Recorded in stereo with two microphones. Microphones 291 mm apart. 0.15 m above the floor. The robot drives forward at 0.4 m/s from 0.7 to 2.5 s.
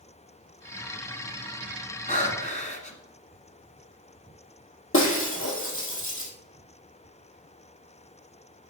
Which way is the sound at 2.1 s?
25° left (ahead or behind).